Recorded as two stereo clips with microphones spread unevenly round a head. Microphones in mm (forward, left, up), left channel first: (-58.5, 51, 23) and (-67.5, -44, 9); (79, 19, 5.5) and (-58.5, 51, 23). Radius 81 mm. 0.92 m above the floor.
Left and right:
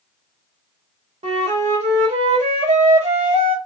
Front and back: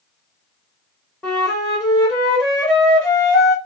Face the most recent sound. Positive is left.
turn(degrees=-105)